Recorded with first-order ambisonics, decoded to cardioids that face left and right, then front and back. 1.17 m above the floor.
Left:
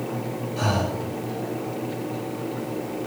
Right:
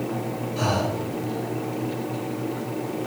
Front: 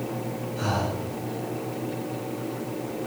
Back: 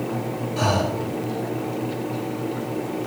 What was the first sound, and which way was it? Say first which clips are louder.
Breathing: right 1 dB, back 6 dB; 175° right.